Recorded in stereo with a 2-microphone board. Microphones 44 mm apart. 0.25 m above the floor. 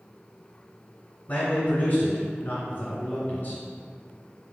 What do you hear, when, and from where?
1.3 s a man speaking: 35° left (ahead or behind), 1.4 m